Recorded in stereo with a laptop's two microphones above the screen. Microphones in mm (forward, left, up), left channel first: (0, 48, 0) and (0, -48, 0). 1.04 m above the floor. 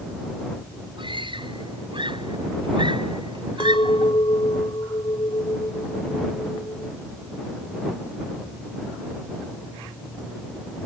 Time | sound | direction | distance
1.0 | a scream | 60° right (ahead or behind) | ?
3.6 | a clink | 60° left (ahead or behind) | ?